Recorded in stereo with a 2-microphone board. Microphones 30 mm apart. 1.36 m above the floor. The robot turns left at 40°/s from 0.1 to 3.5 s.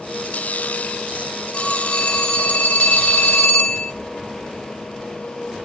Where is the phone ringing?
140° left, 3 m; by 3.9 s 60° left, 3 m.